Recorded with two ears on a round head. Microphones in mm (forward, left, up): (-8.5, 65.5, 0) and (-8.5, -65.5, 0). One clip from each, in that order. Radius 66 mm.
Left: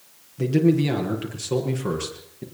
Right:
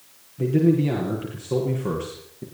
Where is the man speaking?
85° left, 8 m.